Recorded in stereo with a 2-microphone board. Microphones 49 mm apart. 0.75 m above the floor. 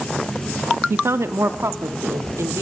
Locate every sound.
0.9 s a woman speaking: 55° right (ahead or behind), 0.9 m; by 2.6 s 75° right (ahead or behind), 1.8 m